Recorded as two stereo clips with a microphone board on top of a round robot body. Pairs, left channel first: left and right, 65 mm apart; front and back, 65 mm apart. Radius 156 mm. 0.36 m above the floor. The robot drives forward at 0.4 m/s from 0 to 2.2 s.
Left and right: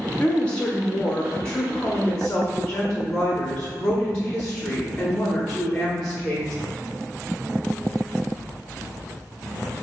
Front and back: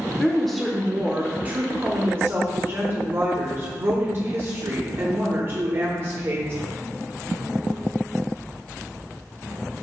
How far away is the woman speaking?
About 0.8 m.